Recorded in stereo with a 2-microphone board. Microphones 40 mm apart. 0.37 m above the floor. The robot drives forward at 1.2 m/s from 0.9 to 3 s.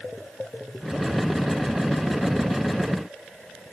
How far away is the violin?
I don't hear a violin.